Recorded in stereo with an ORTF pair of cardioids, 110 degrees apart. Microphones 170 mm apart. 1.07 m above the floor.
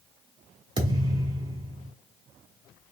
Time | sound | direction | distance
0.8 | a thud | 30° right | 1.5 m